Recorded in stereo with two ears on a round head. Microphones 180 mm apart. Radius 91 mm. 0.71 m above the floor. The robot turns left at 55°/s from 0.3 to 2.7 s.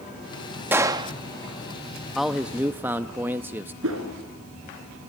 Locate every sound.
0.7 s a gunshot: 10° right (ahead or behind), 0.8 m; by 1.1 s 25° right (ahead or behind), 0.8 m
2.1 s a man speaking: centre (ahead or behind), 0.6 m; by 3.7 s 10° right (ahead or behind), 0.6 m
3.8 s a whoosh: 80° right, 4 m